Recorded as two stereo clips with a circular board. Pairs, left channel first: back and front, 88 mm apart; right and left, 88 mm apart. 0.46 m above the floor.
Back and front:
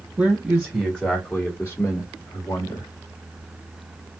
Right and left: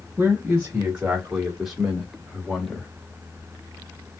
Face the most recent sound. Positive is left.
turn(degrees=-170)